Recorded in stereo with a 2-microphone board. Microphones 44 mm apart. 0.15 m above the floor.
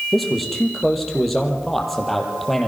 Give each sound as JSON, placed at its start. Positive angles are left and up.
{"t": 0.1, "sound": "a man speaking", "side_deg": 5, "distance_m": 5.0}